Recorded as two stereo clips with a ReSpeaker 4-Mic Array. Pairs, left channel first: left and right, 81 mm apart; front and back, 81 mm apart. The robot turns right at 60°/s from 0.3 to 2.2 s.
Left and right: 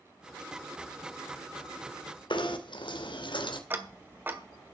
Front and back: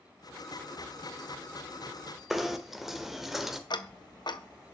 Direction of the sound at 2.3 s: 95° left.